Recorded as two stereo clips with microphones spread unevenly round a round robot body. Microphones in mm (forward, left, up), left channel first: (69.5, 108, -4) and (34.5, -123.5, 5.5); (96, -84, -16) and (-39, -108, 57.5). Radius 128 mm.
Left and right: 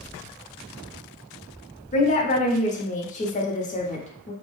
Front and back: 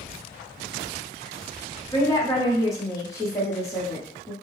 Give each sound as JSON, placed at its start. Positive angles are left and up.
{"t": 1.9, "sound": "a woman speaking", "azimuth_deg": 35, "distance_m": 0.9}